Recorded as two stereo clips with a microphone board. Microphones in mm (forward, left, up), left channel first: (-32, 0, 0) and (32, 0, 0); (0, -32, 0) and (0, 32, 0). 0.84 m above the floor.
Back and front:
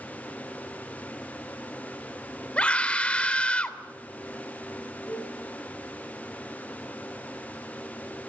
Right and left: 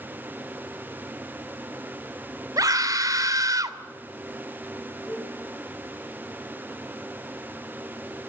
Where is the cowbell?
155° right, 6 m.